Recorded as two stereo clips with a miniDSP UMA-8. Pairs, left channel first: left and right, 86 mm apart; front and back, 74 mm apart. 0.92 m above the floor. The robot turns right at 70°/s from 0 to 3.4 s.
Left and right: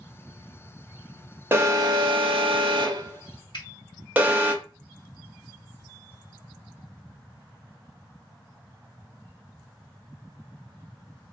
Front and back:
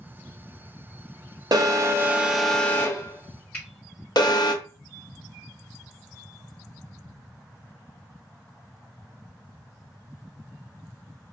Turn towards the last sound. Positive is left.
turn(degrees=65)